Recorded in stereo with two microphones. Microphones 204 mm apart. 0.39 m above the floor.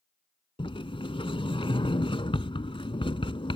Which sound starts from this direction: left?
A sliding door, at 0.6 s.